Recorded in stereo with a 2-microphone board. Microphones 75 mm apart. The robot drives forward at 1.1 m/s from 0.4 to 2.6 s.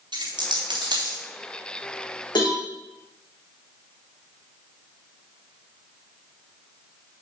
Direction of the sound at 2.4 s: 90° left.